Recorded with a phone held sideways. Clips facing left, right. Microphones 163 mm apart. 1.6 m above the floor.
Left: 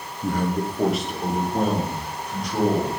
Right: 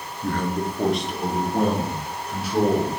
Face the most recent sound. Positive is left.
turn(degrees=-5)  # may be behind; listen again after turning